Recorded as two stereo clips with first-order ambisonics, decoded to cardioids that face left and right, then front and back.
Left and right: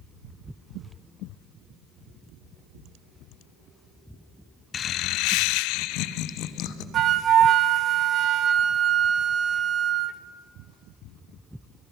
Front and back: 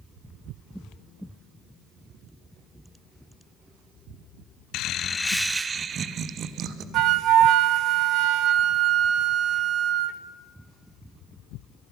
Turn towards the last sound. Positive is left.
turn(degrees=-140)